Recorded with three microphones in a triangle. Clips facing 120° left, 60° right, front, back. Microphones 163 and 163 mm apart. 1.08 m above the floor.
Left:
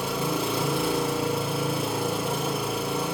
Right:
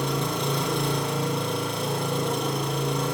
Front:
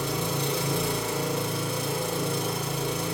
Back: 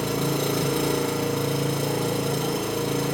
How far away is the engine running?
About 1.0 m.